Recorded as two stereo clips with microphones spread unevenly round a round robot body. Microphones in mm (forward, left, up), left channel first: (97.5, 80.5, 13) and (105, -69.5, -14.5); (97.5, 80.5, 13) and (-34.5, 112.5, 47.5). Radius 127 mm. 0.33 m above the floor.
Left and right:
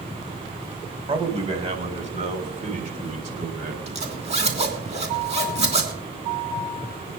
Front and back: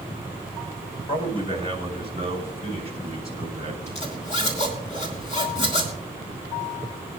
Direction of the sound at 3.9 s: 50° right.